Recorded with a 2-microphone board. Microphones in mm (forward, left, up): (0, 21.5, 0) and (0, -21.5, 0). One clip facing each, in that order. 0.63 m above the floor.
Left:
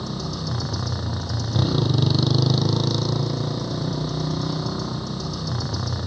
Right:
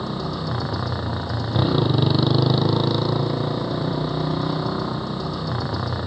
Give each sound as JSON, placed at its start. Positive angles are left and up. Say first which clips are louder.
{"t": 0.0, "sound": "a motorcycle", "louder": "right 3 dB", "side_deg": -20}